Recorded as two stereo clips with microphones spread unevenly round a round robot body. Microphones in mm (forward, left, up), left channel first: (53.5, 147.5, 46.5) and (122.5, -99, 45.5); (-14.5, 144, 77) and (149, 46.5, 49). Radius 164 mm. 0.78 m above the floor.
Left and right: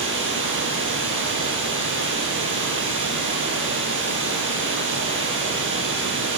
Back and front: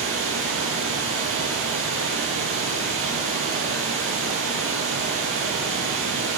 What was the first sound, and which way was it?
Running water, 35° right.